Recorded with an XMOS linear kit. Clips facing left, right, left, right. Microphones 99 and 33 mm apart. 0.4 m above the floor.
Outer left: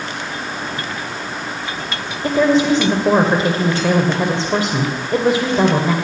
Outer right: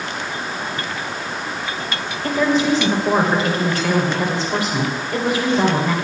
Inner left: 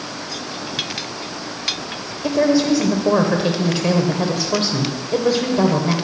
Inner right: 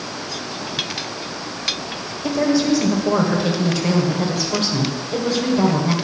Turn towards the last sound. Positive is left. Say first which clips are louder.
# outer left 4 dB, inner left 2 dB
turn(degrees=30)  # may be behind; listen again after turning